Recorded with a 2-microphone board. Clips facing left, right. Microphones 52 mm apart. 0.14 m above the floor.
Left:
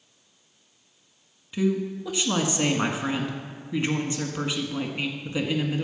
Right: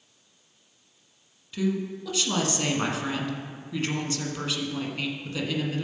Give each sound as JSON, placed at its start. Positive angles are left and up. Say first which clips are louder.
{"t": 1.5, "sound": "a woman speaking", "louder": "left 3 dB", "side_deg": 15, "distance_m": 1.3}